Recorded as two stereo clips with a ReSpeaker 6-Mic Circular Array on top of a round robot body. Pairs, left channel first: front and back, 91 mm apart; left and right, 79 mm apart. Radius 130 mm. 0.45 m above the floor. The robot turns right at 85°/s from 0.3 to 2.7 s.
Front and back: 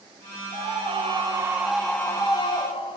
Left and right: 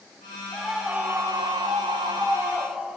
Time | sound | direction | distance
0.5 | a scream | 165° left | 2.5 m